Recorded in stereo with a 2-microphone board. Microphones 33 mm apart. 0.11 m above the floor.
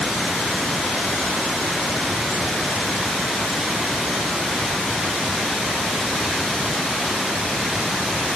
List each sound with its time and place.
Only background noise.